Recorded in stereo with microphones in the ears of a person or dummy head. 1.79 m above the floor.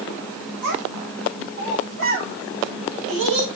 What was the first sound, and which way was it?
A child speaking, 75° right (ahead or behind).